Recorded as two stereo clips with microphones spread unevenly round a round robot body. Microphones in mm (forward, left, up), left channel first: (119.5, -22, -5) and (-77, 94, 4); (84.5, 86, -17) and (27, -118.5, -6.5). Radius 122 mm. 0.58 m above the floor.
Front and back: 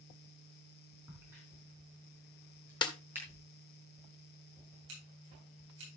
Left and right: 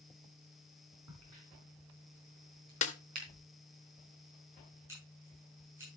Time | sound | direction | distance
1.1 | a crack | 130° right | 3.5 m
2.8 | a snare drum | 30° left | 1.4 m
4.9 | scissors | 175° left | 8.5 m